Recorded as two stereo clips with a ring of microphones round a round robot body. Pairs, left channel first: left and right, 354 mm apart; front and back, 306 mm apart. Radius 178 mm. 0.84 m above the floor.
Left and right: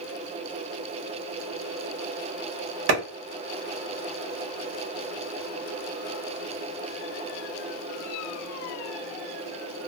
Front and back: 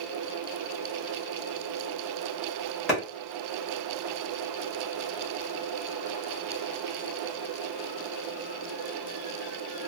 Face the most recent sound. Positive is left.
turn(degrees=-90)